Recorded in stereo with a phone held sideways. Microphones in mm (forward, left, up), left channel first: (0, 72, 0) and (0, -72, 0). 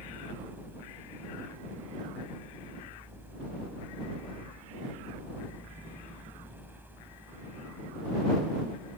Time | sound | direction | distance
0.0 | a fan | 15° right (ahead or behind) | ?